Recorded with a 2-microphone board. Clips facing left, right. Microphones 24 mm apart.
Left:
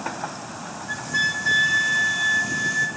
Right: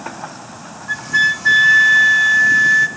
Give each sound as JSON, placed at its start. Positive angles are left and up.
{"t": 0.9, "sound": "a flute", "side_deg": -20, "distance_m": 0.7}